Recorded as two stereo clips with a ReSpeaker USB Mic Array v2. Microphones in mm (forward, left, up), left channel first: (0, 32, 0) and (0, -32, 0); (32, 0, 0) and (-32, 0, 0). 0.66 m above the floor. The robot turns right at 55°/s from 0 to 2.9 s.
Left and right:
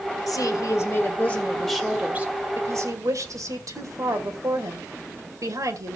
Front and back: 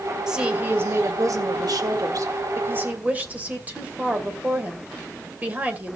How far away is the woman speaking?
About 2.5 m.